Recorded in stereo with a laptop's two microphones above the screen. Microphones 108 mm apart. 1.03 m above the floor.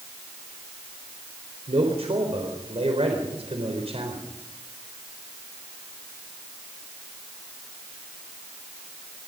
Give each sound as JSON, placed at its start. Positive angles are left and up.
{"t": 1.7, "sound": "a man speaking", "side_deg": -65, "distance_m": 4.0}